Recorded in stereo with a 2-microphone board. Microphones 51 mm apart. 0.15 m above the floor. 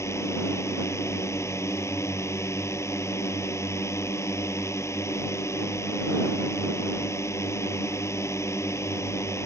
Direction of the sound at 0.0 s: 65° left (ahead or behind).